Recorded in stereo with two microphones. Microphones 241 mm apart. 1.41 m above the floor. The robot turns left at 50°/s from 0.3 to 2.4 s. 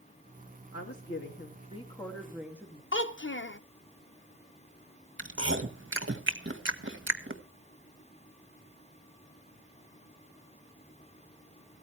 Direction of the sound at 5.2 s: 55° right (ahead or behind).